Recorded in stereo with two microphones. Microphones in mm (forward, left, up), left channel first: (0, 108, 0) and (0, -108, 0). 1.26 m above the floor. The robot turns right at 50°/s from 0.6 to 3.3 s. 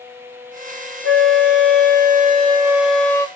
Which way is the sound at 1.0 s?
95° right.